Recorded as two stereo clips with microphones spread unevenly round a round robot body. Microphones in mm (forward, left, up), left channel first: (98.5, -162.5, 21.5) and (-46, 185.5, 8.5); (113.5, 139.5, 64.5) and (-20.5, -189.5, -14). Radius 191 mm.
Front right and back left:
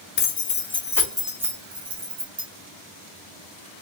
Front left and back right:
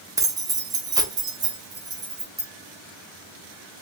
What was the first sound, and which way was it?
Keys jangling, 80° right.